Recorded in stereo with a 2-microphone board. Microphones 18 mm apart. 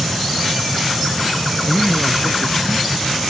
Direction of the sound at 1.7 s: 20° left (ahead or behind).